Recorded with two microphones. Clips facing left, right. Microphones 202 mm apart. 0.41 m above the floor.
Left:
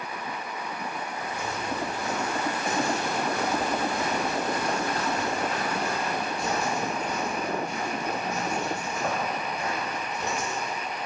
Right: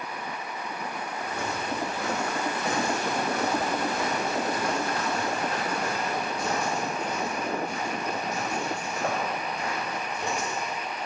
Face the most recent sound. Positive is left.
turn(degrees=-30)  # may be behind; listen again after turning